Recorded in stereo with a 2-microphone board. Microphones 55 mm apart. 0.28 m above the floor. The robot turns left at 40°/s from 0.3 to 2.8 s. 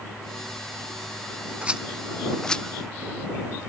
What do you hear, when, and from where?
1.6 s a rattle: 20° right (ahead or behind); by 2.6 s 20° left (ahead or behind)